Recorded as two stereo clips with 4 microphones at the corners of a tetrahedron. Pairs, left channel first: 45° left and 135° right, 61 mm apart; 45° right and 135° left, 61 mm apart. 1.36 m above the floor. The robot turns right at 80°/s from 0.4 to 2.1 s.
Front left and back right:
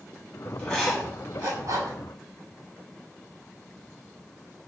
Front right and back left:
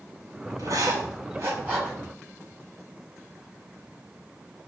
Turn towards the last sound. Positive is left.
turn(degrees=-120)